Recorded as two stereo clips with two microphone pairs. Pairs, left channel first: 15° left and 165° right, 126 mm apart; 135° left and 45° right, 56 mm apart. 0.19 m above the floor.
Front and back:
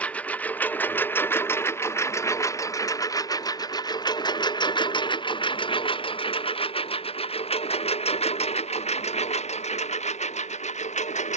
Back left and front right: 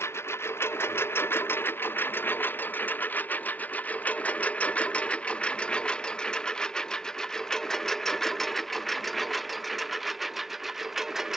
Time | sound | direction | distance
0.0 | a lawn mower | 95° left | ?